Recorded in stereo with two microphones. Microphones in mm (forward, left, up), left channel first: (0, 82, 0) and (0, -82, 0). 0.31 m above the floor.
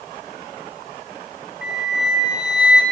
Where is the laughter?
I don't hear laughter.